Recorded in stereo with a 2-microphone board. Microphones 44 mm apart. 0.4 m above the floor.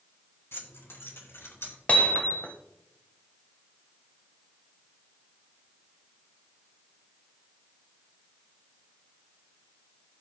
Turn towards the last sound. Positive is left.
turn(degrees=35)  # may be behind; listen again after turning